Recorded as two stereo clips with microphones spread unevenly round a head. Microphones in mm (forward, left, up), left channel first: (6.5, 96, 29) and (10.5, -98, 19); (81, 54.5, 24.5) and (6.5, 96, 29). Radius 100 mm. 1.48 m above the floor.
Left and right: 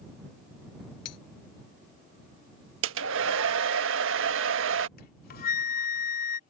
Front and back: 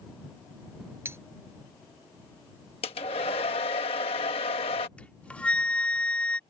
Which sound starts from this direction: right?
A hair dryer, at 2.8 s.